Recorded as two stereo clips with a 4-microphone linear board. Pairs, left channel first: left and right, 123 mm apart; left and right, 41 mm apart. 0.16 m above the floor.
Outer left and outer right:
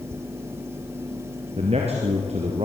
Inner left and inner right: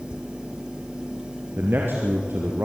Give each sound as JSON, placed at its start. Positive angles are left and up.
{"t": 1.6, "sound": "a man speaking", "side_deg": -55, "distance_m": 3.0}